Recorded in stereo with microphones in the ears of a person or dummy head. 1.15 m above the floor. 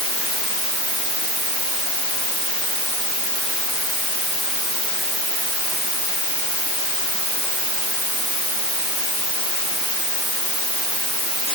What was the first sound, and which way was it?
Only background noise.